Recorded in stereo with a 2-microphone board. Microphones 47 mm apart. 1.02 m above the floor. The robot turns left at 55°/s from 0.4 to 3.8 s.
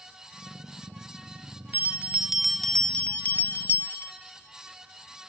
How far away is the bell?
About 0.8 m.